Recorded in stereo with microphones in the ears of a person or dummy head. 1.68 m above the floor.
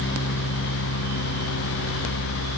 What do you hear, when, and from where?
Only background noise.